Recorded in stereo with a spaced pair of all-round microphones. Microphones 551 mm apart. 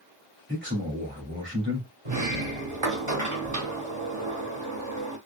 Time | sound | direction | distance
0.5 | a man speaking | 20° right (ahead or behind) | 2.5 m
2.0 | a sliding door | 65° right (ahead or behind) | 1.2 m